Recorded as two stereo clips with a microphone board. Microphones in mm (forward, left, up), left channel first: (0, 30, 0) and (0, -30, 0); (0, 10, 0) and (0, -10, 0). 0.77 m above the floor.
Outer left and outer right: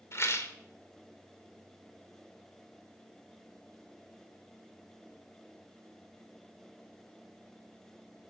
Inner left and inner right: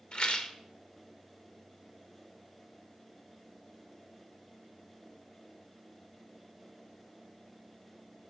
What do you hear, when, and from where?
0.1 s a rattle: 50° left (ahead or behind), 2.5 m